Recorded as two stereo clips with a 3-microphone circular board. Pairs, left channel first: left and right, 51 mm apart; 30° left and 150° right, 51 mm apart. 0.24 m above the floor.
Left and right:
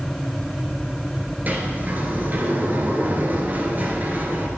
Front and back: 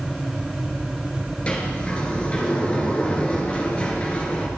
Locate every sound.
1.5 s a sliding door: 35° right, 2.5 m